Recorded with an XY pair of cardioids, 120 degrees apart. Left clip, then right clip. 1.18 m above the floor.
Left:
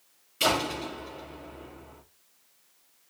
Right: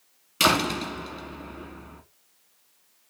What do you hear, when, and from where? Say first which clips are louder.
0.4 s a door slam: right 4 dB; 70° right, 1.7 m